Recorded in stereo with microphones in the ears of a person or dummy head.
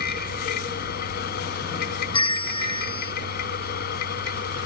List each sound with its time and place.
0.0 s a machine running: 50° left (ahead or behind)
2.1 s a bell: 25° left (ahead or behind)